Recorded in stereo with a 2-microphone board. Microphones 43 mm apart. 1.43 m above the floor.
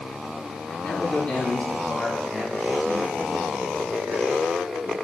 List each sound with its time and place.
0.8 s a man speaking: 30° left (ahead or behind), 4 m; by 4.9 s 70° right (ahead or behind), 3 m